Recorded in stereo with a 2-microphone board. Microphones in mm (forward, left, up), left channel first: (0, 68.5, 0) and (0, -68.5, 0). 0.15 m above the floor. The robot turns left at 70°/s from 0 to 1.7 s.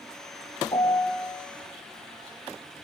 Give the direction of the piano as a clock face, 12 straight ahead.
11 o'clock.